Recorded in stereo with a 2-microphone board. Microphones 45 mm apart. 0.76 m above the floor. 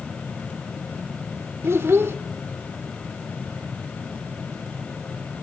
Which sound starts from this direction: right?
A child speaking, at 1.6 s.